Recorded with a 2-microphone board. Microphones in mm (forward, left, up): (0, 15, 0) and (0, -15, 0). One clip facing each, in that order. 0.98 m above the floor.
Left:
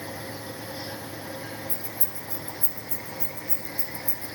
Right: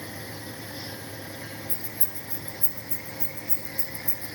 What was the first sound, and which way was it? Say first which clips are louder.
Keys jangling: left 2 dB; 35° right (ahead or behind).